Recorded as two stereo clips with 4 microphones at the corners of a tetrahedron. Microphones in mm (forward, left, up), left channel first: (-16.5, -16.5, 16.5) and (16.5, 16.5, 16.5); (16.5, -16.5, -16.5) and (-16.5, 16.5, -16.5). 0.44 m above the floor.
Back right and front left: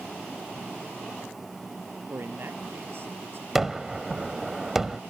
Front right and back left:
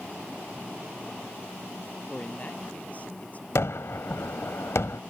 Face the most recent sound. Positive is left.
turn(degrees=-35)